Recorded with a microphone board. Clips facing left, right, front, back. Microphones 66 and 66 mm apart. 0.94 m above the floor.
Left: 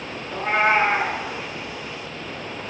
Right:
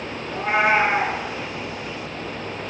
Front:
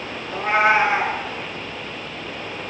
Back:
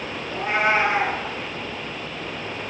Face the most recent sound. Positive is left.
turn(degrees=-5)